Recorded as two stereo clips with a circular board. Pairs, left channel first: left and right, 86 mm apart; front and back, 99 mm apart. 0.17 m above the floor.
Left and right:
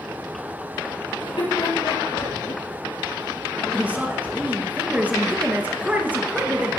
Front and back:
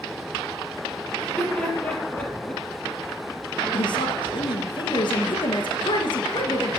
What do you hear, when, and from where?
1.2 s laughter: 80° left, 5 m
3.7 s a woman speaking: 20° right, 2.5 m